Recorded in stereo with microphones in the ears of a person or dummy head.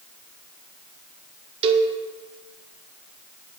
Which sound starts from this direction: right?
A cowbell, at 1.6 s.